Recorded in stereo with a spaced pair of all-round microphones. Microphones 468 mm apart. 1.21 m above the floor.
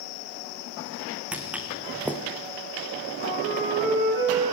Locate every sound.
1.3 s footsteps: 5° right (ahead or behind), 3.5 m
3.2 s a flute: 25° left (ahead or behind), 10 m